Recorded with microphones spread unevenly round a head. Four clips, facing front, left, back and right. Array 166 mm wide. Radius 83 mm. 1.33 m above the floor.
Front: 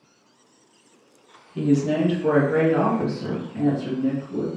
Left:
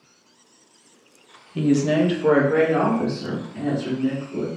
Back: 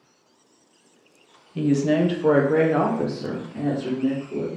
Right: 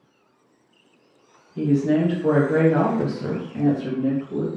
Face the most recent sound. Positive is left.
turn(degrees=-125)